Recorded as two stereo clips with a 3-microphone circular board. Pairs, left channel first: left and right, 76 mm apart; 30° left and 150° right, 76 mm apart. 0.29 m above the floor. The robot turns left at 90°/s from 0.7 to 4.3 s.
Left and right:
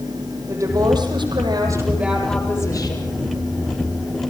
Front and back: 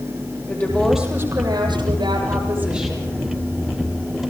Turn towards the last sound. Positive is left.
turn(degrees=-5)